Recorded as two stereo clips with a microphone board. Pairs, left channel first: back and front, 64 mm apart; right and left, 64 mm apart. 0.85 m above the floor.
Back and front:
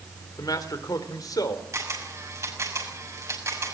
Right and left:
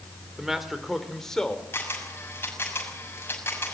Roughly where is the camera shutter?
Ahead right.